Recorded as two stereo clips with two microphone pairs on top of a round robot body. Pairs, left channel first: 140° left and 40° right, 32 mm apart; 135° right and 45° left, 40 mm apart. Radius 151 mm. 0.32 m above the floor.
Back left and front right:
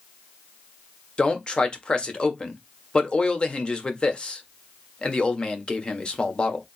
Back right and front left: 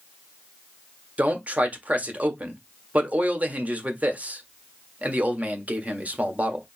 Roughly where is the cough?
No cough in this recording.